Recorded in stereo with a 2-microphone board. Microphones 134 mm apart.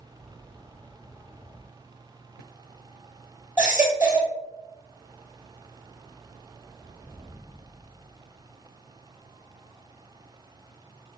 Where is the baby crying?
15° right (ahead or behind), 1.9 m.